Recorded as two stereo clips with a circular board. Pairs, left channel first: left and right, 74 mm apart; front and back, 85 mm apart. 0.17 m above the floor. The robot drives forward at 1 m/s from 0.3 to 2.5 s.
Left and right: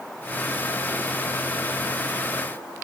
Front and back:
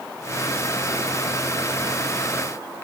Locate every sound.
Only background noise.